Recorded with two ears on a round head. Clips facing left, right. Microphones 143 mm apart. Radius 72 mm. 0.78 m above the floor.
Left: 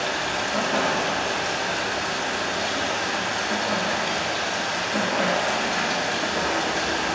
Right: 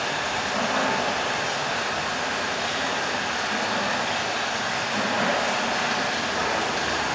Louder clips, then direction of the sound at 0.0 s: Left 1 dB; 55° left (ahead or behind).